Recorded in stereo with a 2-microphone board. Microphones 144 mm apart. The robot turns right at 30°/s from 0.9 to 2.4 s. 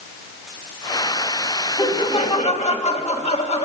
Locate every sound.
1.8 s laughter: 35° left (ahead or behind), 2.5 m; by 3.6 s 50° left (ahead or behind), 2.5 m